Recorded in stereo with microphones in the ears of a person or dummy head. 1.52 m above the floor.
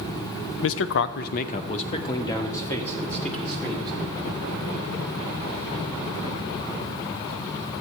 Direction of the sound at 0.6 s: 75° left (ahead or behind).